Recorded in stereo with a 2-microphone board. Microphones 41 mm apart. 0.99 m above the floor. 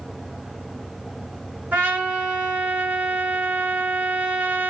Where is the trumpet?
50° right (ahead or behind), 2 m.